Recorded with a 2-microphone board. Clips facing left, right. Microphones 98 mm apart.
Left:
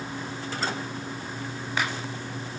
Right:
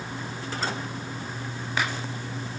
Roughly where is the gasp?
No gasp in this recording.